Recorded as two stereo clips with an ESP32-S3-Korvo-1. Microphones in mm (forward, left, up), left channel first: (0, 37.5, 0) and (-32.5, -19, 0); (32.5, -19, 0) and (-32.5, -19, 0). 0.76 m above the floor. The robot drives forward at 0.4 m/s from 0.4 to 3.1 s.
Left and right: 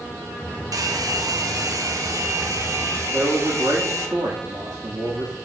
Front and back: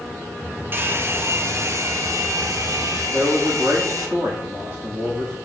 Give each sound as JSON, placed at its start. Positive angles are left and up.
{"t": 0.7, "sound": "a hair dryer", "azimuth_deg": -125, "distance_m": 1.0}
{"t": 3.1, "sound": "a man speaking", "azimuth_deg": -130, "distance_m": 1.3}